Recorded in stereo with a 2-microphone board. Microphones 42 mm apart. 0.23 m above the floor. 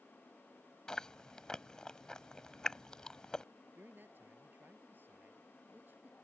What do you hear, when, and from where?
0.9 s chewing: 20° left (ahead or behind)
3.8 s a man speaking: 55° right (ahead or behind)